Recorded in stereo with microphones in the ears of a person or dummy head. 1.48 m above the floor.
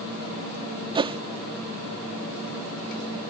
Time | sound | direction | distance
0.9 | a whoosh | 20° right (ahead or behind) | ?